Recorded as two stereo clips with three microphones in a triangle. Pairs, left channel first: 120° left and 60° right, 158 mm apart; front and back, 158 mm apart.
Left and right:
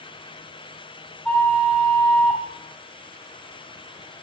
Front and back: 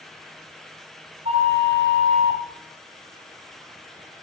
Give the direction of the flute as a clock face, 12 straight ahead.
5 o'clock.